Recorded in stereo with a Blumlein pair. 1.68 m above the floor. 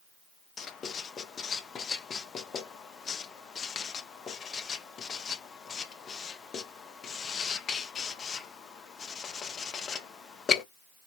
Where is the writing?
20° left, 0.5 m.